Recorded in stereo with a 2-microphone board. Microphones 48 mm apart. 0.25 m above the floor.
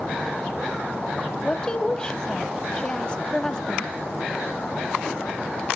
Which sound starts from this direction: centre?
A woman speaking, at 1.4 s.